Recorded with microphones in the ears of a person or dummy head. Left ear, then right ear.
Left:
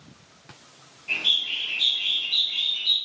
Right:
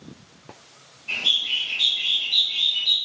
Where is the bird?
5° left (ahead or behind), 0.9 m.